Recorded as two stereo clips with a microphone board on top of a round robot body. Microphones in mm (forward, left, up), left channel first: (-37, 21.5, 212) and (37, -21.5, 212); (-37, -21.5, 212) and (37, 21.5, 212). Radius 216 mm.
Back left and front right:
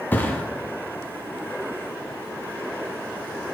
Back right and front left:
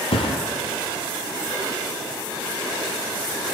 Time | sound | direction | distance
0.1 | a thud | 140° right | 1.3 m